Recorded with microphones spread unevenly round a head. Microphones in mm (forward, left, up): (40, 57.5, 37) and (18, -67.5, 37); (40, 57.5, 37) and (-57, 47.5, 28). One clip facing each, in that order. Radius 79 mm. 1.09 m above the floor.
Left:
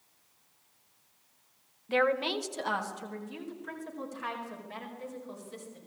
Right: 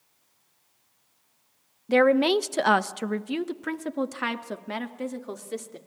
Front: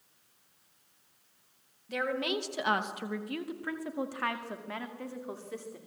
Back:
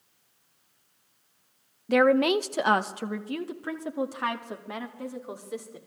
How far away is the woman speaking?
About 0.7 m.